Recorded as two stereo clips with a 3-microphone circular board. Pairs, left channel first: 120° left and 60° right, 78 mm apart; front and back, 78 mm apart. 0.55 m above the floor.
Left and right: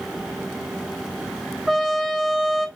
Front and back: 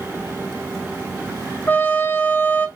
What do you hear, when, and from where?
1.7 s a trumpet: 25° left, 0.6 m